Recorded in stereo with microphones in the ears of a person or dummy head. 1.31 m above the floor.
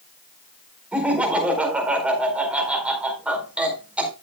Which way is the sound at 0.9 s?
5° right (ahead or behind).